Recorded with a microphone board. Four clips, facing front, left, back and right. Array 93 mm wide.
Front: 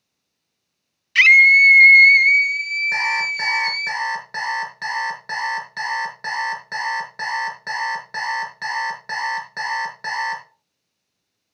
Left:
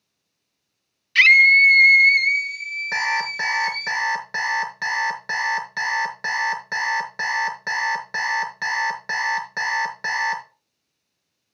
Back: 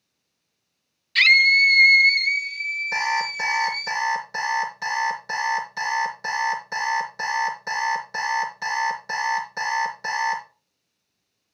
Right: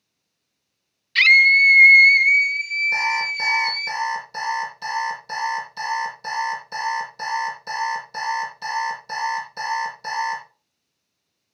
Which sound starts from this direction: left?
An alarm clock, at 2.9 s.